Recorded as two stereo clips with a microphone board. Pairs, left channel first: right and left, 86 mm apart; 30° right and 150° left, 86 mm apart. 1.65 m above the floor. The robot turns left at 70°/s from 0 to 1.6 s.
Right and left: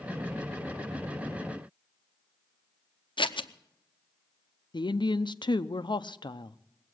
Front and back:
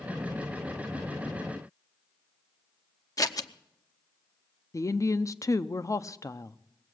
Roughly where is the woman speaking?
Right.